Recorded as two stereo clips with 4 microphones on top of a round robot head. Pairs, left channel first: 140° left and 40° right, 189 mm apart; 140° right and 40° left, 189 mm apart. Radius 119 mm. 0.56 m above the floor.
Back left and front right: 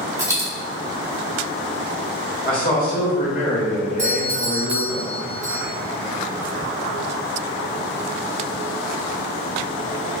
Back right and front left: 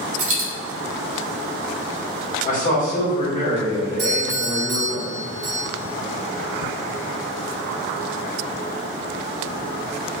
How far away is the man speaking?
About 1.7 m.